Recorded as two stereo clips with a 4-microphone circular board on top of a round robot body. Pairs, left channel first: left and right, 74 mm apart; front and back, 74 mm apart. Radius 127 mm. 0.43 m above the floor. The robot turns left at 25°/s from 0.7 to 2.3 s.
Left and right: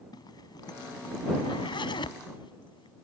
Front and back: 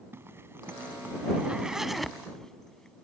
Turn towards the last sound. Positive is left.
turn(degrees=85)